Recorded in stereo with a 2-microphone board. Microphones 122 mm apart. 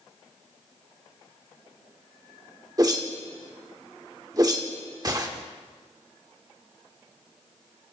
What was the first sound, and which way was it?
A whoosh, 30° right (ahead or behind).